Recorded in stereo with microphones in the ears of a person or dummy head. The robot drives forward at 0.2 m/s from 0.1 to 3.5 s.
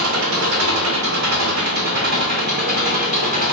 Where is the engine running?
85° right, 0.8 m; by 3.5 s 45° right (ahead or behind), 1.1 m.